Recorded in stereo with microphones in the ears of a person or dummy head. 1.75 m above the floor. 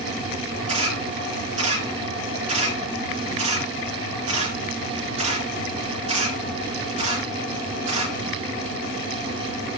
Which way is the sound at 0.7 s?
25° right (ahead or behind).